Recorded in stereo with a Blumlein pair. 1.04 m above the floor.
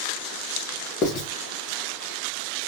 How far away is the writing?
About 0.7 m.